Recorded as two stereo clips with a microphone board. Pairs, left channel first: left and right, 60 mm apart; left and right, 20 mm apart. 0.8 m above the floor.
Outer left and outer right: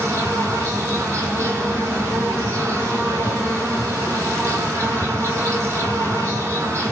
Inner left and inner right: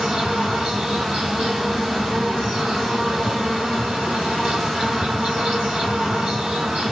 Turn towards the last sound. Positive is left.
turn(degrees=-45)  # may be behind; listen again after turning